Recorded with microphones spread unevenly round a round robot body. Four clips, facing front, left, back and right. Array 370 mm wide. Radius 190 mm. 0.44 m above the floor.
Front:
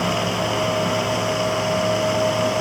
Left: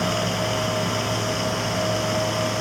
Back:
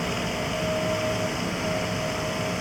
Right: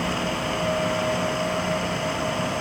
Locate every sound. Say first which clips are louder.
0.0 s running water: left 2 dB, front 7 dB; 45° left